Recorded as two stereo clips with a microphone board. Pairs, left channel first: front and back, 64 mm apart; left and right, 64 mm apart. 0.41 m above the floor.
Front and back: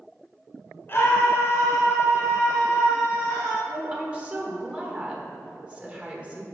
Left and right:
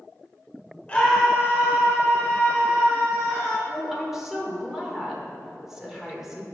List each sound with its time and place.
0.9 s a scream: 30° left, 1.2 m; by 3.6 s 65° right, 4 m
3.7 s a woman speaking: 160° right, 1.2 m